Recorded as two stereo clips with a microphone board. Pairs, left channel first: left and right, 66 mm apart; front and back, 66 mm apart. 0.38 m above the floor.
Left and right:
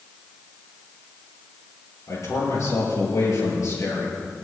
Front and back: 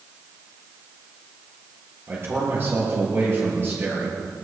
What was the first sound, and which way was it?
A man speaking, 125° left.